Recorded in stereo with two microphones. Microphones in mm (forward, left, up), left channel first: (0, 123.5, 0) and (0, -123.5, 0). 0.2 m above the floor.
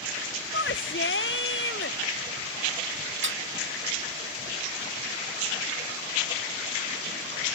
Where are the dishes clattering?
50° right (ahead or behind).